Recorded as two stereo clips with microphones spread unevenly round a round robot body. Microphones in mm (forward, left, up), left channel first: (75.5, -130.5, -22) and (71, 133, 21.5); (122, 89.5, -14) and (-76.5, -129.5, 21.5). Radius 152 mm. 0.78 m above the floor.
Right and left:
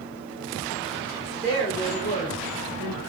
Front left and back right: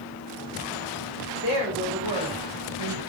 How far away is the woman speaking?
About 1.7 m.